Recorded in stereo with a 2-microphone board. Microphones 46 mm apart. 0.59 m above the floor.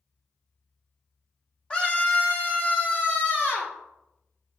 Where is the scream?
20° left (ahead or behind), 1.4 m; by 3.7 s 55° left (ahead or behind), 2.5 m.